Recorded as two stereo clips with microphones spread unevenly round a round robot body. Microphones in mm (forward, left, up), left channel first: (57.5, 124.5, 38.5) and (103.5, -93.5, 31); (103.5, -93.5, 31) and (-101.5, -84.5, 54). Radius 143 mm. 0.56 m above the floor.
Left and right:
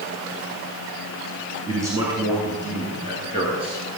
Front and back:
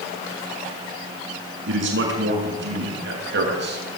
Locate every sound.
1.7 s a man speaking: 160° right, 8.5 m; by 3.9 s 150° right, 9.5 m